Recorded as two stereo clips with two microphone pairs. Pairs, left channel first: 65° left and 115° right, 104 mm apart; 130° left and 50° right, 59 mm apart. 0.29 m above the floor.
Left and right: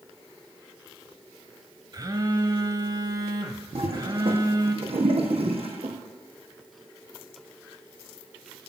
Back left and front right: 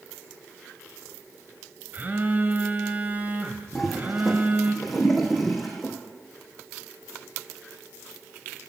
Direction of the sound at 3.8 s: 135° right.